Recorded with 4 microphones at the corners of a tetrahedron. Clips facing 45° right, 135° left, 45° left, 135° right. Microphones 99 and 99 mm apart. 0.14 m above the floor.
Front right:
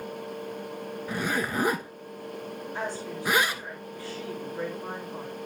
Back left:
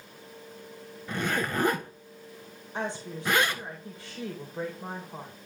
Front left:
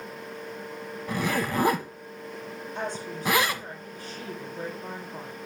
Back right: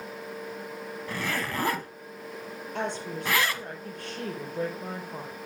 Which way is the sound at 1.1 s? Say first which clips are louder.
Even, front left 5 dB; 10° left.